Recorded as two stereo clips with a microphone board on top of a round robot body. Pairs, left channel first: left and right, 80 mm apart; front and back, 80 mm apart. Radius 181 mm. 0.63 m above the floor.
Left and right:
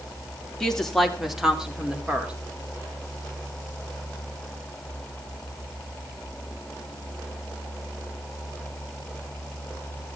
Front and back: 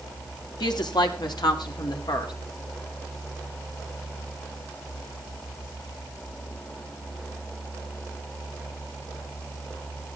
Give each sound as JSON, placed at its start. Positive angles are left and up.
{"t": 0.6, "sound": "a woman speaking", "azimuth_deg": 5, "distance_m": 2.5}